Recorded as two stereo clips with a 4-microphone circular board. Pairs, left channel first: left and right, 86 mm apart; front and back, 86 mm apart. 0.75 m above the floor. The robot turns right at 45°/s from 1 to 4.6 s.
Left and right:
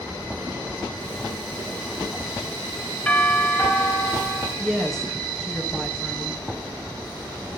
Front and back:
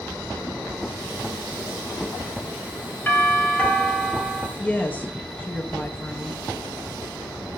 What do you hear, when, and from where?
3.1 s a doorbell: 35° left, 1.6 m; by 4.5 s 100° left, 1.6 m
4.6 s a woman speaking: 15° left, 0.8 m